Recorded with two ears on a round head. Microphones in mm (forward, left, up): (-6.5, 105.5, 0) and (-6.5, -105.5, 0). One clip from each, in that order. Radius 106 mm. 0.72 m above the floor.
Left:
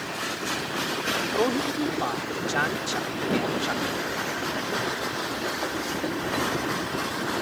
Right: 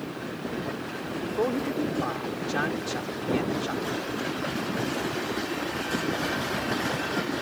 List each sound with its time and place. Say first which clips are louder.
1.2 s a man speaking: right 1 dB; 25° left (ahead or behind)